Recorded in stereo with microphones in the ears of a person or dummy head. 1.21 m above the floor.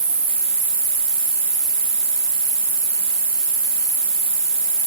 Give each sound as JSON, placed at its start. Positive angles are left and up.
{"t": 0.0, "sound": "an insect", "side_deg": -25, "distance_m": 0.8}